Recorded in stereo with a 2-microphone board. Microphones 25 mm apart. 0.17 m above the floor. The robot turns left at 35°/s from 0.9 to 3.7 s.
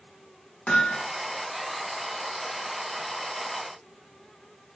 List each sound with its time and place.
0.7 s hammering: 80° left, 9 m